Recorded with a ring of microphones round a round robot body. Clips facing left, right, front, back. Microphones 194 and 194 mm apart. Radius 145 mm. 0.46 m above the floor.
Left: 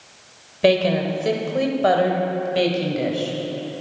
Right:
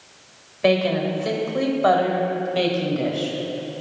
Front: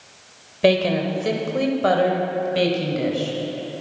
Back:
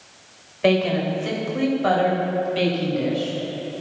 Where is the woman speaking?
40° left, 2.5 m; by 3.4 s 15° left, 3 m.